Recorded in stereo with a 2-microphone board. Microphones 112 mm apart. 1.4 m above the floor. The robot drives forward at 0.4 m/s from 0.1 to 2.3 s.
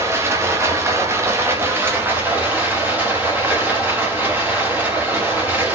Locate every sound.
0.0 s running water: 25° right (ahead or behind), 0.8 m; by 5.8 s 20° right (ahead or behind), 1.0 m